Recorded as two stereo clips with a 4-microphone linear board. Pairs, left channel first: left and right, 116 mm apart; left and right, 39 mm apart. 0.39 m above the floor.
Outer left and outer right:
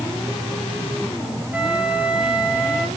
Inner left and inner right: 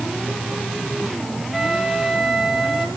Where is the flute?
10° right (ahead or behind), 3.5 m.